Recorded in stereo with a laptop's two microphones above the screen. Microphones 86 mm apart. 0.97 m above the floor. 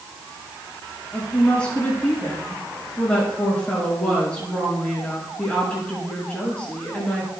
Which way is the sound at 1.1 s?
15° left (ahead or behind).